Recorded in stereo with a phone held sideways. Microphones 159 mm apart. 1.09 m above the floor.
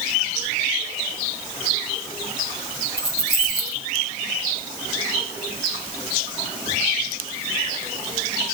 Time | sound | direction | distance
3.0 | keys jangling | 85° left | 3 m